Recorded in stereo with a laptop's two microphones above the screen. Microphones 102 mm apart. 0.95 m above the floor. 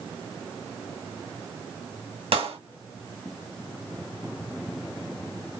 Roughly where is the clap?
Right.